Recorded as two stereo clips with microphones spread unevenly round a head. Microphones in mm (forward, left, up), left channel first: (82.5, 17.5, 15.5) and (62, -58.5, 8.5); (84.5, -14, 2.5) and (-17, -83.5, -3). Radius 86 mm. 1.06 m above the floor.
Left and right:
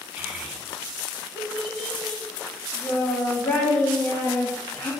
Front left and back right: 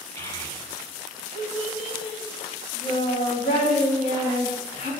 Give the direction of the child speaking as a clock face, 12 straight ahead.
1 o'clock.